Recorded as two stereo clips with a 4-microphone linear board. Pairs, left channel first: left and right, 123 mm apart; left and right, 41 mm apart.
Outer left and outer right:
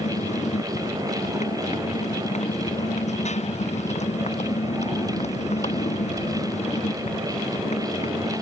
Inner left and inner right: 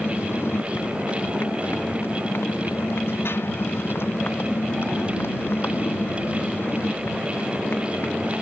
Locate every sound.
0.0 s a motorcycle: 70° left (ahead or behind); by 8.4 s 65° left (ahead or behind)